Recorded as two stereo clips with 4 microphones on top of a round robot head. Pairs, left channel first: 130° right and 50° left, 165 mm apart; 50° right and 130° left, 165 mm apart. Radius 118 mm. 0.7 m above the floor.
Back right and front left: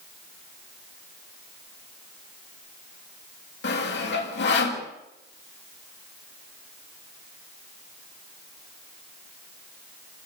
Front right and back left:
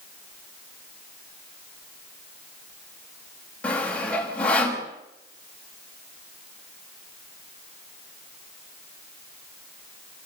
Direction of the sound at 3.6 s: 135° right.